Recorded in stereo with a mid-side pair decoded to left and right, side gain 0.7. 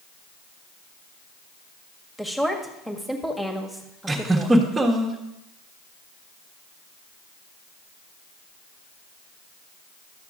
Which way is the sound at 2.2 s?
5° left.